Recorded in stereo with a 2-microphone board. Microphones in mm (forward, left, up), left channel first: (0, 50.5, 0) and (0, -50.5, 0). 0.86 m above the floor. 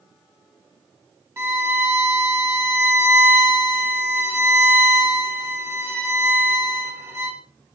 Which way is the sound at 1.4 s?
25° right (ahead or behind).